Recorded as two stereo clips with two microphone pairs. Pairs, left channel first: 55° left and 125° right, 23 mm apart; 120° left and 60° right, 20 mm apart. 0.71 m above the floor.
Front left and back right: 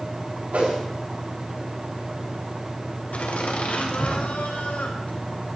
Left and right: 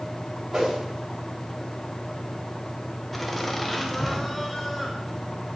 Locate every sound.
0.5 s a whoosh: 125° right, 7 m
3.1 s laughter: 40° left, 3 m